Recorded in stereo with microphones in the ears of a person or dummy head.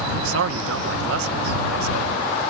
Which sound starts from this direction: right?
A man speaking, at 0.1 s.